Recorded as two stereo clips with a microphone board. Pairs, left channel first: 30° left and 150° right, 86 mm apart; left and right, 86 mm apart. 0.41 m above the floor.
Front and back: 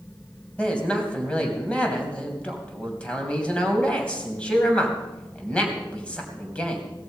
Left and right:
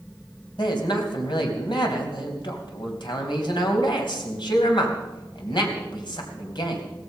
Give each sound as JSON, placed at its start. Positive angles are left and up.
{"t": 0.6, "sound": "a man speaking", "azimuth_deg": 105, "distance_m": 3.0}